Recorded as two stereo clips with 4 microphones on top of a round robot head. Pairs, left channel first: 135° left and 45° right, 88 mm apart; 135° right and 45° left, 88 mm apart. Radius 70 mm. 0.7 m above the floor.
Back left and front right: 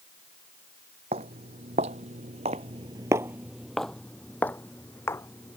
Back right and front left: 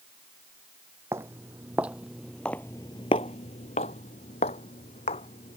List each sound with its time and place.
1.1 s footsteps: 20° right; by 5.6 s 160° right